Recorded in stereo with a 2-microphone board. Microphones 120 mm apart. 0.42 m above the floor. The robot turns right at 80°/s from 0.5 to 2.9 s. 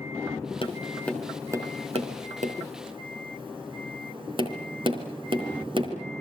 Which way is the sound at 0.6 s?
45° left (ahead or behind).